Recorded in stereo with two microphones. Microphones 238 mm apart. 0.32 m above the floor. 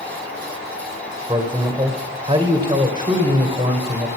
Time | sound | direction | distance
1.3 | a man speaking | 20° right (ahead or behind) | 1.3 m